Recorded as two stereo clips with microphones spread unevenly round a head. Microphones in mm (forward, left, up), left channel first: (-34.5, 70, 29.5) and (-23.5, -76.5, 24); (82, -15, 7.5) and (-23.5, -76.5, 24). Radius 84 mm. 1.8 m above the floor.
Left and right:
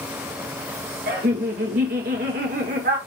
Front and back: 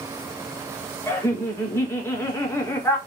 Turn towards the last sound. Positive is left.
turn(degrees=-40)